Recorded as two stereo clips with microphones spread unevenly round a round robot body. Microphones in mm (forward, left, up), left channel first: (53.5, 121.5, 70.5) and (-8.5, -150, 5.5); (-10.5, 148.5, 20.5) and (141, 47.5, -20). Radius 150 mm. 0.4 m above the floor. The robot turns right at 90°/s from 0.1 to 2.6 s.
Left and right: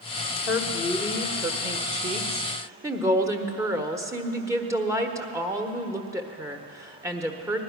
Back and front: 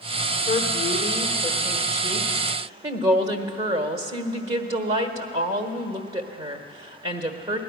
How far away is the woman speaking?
About 1.1 m.